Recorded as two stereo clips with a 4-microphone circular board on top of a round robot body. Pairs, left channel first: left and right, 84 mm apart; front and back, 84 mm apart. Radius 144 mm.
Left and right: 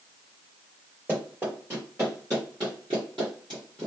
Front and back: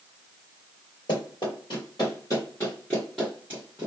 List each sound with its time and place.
1.1 s running footsteps: 20° right, 1.6 m; by 3.9 s 130° right, 1.2 m